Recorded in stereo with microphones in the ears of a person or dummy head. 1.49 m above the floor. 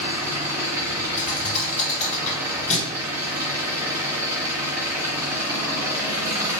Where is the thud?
40° left (ahead or behind), 1.9 m.